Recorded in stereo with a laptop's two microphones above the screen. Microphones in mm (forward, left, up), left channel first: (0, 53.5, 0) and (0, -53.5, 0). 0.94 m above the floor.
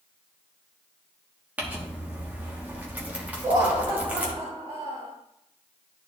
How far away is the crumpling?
About 1.3 m.